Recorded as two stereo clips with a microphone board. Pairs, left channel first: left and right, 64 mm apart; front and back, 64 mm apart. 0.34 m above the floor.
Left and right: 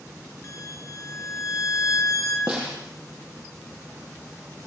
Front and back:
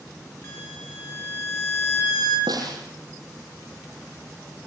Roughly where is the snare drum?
Behind.